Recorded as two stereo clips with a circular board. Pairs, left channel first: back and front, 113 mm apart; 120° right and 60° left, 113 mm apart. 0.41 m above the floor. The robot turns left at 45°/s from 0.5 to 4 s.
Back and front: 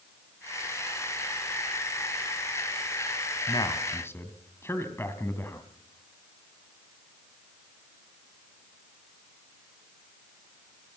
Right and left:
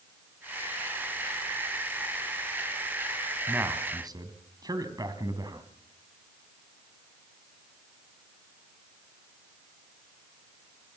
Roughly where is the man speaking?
Behind left.